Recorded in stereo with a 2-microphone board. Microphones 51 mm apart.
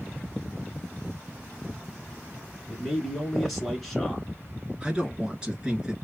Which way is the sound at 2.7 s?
Centre (ahead or behind).